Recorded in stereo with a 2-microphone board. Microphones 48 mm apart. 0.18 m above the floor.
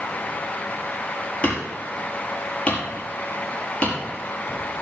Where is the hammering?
25° left (ahead or behind), 4.5 m.